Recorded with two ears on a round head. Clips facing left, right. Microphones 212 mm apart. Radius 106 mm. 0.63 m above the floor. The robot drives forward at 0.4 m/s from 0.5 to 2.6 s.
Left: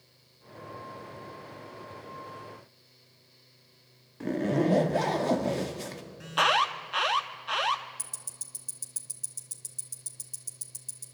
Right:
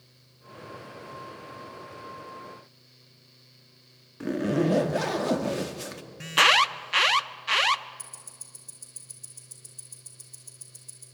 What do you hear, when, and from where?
4.2 s a zipper: 10° right (ahead or behind), 1.2 m
6.2 s an alarm: 35° right (ahead or behind), 0.7 m
8.0 s ticking: 25° left (ahead or behind), 2.5 m